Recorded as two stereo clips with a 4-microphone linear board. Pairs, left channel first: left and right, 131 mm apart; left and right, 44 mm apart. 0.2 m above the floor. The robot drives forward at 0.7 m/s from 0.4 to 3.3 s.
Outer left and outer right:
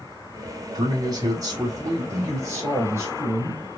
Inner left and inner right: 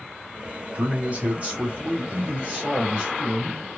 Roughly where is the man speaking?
Right.